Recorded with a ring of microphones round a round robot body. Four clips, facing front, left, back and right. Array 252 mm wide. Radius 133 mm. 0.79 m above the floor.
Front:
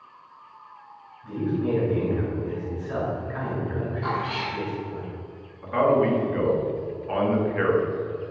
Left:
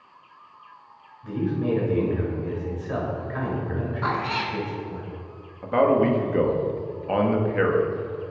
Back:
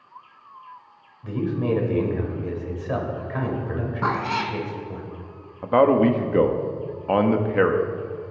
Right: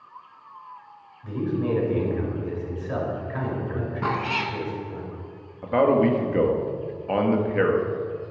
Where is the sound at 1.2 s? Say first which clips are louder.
Even, back 1 dB; 175° right, 4.5 m.